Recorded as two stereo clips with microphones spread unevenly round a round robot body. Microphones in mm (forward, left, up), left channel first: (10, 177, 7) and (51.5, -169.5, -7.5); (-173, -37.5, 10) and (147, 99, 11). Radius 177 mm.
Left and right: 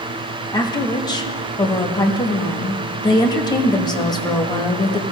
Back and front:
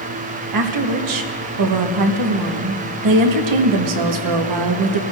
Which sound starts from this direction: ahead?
A woman speaking, at 0.5 s.